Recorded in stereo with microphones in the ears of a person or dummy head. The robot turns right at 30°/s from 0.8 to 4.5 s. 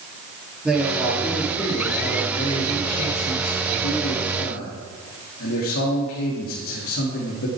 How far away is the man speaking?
About 2.5 m.